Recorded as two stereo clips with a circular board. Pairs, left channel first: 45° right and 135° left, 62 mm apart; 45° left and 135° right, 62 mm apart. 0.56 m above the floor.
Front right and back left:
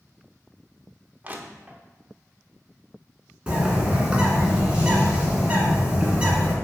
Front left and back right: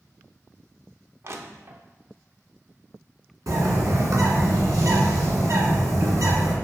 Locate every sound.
1.2 s crushing: 165° right, 0.6 m
3.5 s a bird: 155° right, 1.6 m